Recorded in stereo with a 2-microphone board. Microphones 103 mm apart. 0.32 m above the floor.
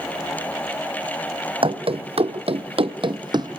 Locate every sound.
1.6 s running footsteps: 60° right (ahead or behind), 1.0 m; by 3.6 s 40° right (ahead or behind), 0.9 m